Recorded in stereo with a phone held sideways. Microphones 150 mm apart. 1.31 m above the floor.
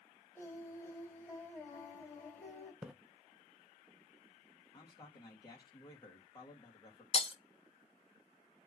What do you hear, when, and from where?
0.3 s singing: 15° left (ahead or behind), 3 m
2.8 s a splash: 5° right (ahead or behind), 0.8 m
4.7 s a man speaking: 30° left (ahead or behind), 2.5 m
7.1 s breaking glass: 40° left (ahead or behind), 0.8 m